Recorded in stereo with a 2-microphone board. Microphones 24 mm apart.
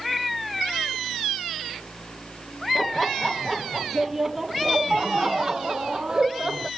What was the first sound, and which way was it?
Laughter, 10° left (ahead or behind).